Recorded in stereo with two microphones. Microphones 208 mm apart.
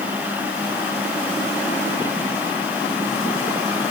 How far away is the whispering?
No whispering in this recording.